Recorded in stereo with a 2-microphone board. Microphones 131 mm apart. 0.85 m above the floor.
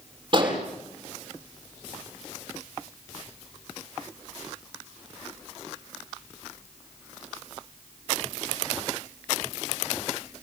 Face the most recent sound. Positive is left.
turn(degrees=-40)  # may be behind; listen again after turning